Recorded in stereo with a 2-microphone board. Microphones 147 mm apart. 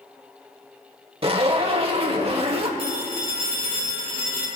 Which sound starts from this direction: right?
A zipper, at 1.2 s.